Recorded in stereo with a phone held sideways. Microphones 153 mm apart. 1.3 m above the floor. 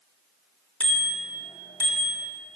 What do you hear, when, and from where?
0.8 s a bicycle bell: 10° left (ahead or behind), 3 m; by 2.2 s 30° left (ahead or behind), 3.5 m